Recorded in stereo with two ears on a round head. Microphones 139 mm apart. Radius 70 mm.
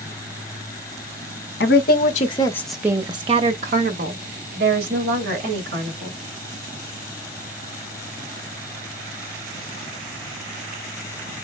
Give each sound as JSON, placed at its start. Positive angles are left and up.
{"t": 1.6, "sound": "a woman speaking", "side_deg": 65, "distance_m": 0.8}